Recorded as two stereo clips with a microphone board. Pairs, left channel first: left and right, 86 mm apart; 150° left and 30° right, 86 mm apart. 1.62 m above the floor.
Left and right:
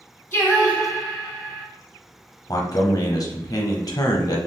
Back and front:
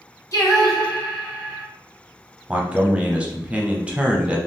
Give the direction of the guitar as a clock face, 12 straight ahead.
I don't hear a guitar.